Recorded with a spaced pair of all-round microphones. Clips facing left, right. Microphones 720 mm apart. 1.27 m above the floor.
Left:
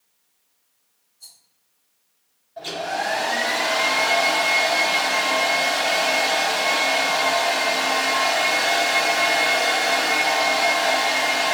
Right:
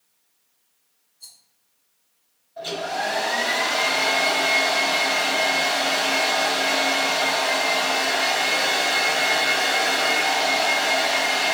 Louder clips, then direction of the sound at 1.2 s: Left 1 dB; 40° left (ahead or behind).